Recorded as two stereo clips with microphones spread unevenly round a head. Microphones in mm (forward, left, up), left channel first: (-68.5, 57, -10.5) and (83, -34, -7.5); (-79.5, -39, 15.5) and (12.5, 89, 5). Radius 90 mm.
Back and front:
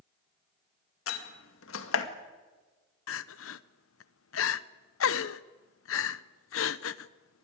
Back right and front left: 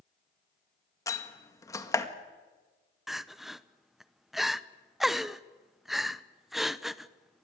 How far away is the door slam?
About 2 m.